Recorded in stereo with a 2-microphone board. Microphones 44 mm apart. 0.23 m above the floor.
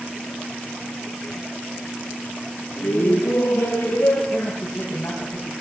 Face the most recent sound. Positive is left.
turn(degrees=60)  # may be behind; listen again after turning